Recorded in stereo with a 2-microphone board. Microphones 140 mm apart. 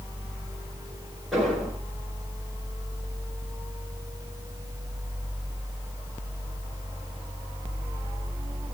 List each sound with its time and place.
1.3 s an explosion: centre (ahead or behind), 9.5 m